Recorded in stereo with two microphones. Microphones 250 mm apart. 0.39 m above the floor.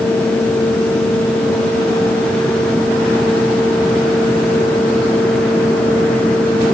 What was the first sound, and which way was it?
Only background noise.